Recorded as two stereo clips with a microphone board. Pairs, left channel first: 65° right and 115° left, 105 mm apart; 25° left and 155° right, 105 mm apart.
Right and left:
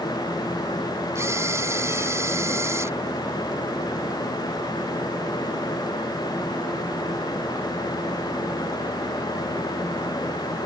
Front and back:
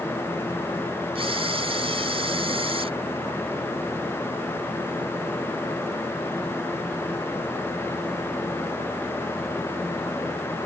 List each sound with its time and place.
1.1 s a camera shutter: 175° left